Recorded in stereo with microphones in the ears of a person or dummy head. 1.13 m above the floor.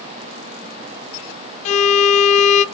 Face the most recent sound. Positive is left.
turn(degrees=40)  # may be behind; listen again after turning